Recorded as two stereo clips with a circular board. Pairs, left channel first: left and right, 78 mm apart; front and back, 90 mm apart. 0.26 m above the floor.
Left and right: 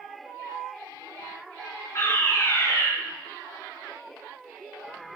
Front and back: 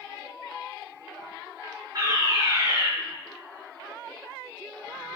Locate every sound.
1.9 s a fire alarm: 135° left, 6.5 m